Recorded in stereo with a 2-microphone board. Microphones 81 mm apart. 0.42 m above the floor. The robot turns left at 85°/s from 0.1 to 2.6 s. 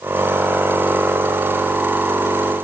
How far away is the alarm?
No alarm in this recording.